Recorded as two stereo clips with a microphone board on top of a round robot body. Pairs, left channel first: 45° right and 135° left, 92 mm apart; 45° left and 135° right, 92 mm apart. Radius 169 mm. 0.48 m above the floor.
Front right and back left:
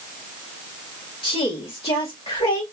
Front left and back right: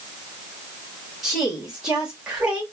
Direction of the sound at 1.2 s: 50° right.